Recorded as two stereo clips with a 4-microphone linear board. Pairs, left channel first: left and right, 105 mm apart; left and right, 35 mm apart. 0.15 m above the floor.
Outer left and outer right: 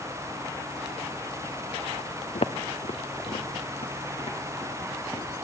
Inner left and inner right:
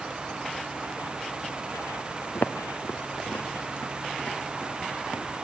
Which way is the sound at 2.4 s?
85° left.